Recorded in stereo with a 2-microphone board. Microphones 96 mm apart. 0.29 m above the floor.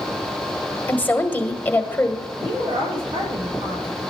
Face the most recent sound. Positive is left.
turn(degrees=-70)  # may be behind; listen again after turning